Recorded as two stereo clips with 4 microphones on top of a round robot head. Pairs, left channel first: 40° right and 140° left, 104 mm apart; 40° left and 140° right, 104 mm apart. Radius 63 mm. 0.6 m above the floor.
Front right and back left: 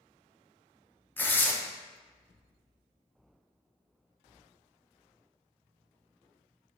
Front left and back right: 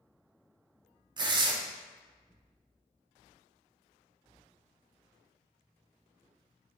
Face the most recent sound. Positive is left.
turn(degrees=-110)